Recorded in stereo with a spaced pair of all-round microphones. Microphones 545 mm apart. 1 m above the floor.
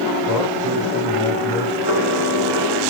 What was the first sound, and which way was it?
A man speaking, 40° left (ahead or behind).